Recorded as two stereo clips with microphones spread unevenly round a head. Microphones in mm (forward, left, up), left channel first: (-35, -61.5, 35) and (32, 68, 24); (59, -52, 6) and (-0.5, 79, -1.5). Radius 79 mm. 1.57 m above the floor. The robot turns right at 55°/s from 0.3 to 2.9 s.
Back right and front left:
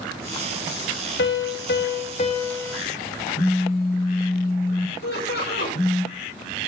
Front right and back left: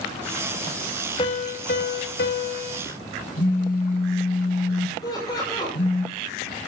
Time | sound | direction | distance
1.2 | a piano | 125° right | 2 m
3.4 | a phone buzzing | 85° right | 6.5 m
5.0 | laughter | 130° right | 8 m